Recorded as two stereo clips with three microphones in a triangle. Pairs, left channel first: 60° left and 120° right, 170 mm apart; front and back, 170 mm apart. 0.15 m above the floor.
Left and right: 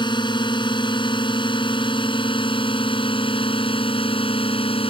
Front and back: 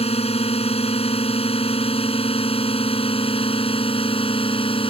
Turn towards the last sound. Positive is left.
turn(degrees=30)